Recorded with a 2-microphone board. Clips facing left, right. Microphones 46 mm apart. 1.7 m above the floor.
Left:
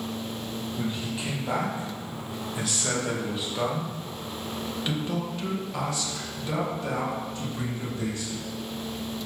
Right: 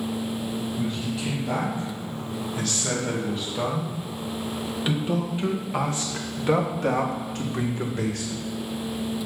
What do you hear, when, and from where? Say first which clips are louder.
0.8 s a man speaking: right 3 dB; 25° left (ahead or behind), 3 m; by 8.4 s 70° right (ahead or behind), 2 m